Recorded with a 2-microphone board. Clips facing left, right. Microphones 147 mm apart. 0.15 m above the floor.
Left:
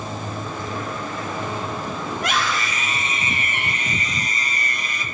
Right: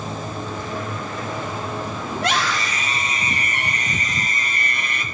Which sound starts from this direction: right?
A scream, at 2.1 s.